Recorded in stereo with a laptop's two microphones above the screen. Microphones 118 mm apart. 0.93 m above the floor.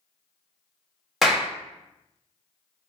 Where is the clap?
Centre (ahead or behind), 0.9 m.